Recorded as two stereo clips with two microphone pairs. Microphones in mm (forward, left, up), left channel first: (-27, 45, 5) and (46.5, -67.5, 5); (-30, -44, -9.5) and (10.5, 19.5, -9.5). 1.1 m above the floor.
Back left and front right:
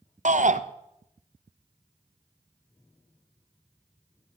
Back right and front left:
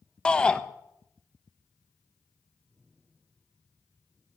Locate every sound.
0.2 s a shout: 45° right, 1.0 m